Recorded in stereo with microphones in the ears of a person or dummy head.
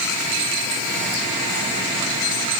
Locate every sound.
Only background noise.